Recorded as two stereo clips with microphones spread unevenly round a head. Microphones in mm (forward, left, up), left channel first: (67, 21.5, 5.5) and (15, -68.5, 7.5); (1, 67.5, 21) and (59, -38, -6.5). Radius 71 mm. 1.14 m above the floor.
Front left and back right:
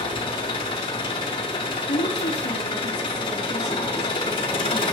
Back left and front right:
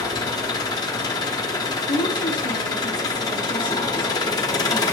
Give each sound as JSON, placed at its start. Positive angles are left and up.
{"t": 0.0, "sound": "an engine running", "azimuth_deg": 95, "distance_m": 1.0}
{"t": 1.9, "sound": "a woman speaking", "azimuth_deg": 80, "distance_m": 1.7}